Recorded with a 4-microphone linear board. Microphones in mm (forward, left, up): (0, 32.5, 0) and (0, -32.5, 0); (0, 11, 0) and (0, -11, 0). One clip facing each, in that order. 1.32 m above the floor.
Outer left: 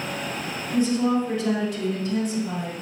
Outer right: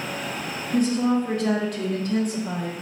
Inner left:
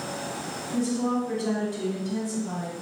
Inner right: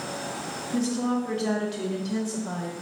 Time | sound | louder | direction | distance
0.7 | a woman speaking | even, even | 55° right (ahead or behind) | 1.1 m